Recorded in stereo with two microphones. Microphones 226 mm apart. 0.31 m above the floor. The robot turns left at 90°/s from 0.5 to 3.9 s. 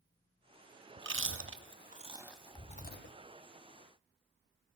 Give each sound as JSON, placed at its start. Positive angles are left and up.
{"t": 1.0, "sound": "chewing", "side_deg": -50, "distance_m": 0.6}